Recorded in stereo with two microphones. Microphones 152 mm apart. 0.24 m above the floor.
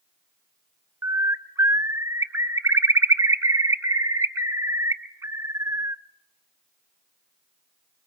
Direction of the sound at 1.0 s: 20° right (ahead or behind).